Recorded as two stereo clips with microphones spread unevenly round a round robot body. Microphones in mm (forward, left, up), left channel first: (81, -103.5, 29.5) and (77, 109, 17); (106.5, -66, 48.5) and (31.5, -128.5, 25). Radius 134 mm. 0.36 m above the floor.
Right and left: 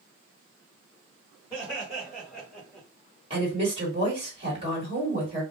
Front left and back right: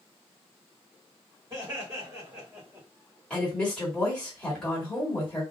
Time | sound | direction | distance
1.5 | laughter | 175° right | 2 m
3.3 | a woman speaking | 140° left | 1.7 m